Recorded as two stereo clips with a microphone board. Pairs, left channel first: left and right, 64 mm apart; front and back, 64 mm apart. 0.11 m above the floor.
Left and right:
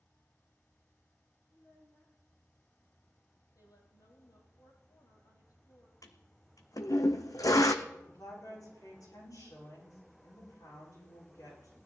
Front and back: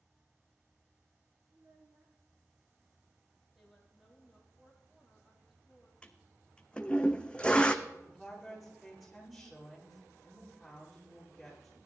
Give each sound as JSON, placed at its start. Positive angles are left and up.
{"t": 1.5, "sound": "a child speaking", "azimuth_deg": 150, "distance_m": 3.5}
{"t": 3.5, "sound": "a woman speaking", "azimuth_deg": 95, "distance_m": 4.0}
{"t": 6.0, "sound": "a toilet flushing", "azimuth_deg": 75, "distance_m": 1.1}
{"t": 7.8, "sound": "a woman speaking", "azimuth_deg": 95, "distance_m": 9.0}